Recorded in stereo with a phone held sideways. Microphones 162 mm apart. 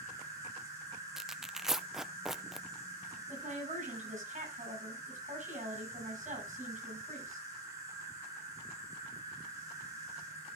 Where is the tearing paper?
Centre (ahead or behind), 0.5 m.